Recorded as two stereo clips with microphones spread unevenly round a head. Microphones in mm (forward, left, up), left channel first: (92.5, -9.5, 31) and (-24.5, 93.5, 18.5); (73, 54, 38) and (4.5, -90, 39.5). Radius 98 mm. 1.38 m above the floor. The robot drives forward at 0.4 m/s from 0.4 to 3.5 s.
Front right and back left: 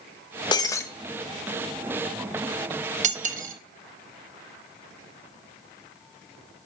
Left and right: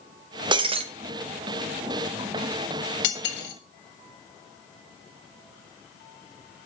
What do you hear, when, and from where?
0.5 s breaking glass: 75° right, 0.6 m; by 0.8 s 100° right, 0.6 m
3.0 s cutlery clinking: 95° left, 1.3 m; by 3.5 s 105° left, 1.3 m